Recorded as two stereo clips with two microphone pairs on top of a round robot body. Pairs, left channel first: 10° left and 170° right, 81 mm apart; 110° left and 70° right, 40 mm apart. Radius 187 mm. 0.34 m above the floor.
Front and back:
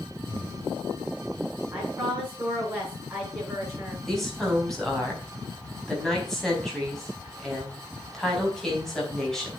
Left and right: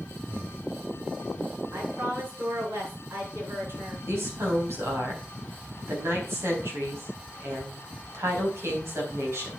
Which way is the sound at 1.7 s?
90° right.